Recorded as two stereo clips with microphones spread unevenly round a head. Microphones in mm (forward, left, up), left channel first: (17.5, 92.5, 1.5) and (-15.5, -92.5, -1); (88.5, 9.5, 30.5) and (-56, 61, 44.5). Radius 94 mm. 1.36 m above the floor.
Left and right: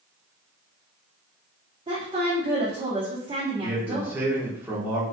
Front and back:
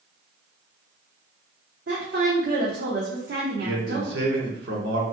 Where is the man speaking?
Straight behind, 1.2 m.